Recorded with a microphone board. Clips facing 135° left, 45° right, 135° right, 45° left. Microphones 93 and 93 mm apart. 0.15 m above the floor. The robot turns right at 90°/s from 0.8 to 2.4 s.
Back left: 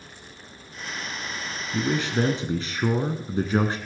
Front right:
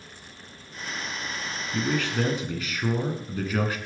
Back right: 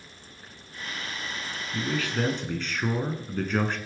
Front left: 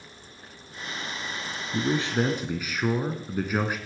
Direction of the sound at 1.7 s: 60° left.